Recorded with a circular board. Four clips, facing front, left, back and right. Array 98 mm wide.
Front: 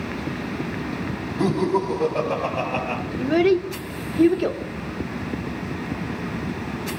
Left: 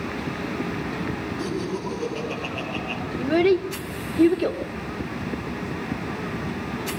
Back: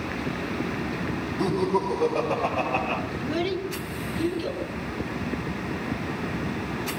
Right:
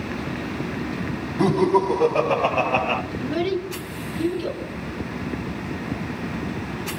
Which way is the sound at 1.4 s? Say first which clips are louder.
Right 14 dB, front 3 dB; 75° right.